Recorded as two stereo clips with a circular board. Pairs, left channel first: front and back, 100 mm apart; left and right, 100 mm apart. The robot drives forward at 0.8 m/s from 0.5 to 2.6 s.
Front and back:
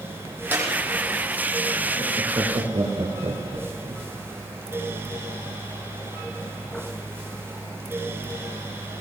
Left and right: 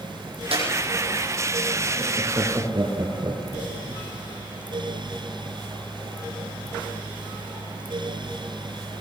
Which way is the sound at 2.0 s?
140° right.